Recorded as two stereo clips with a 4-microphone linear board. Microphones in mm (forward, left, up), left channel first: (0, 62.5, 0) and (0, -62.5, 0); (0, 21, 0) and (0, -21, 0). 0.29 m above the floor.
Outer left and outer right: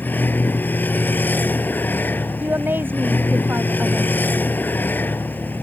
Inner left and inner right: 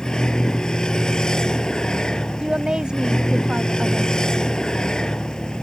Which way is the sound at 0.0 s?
15° left (ahead or behind).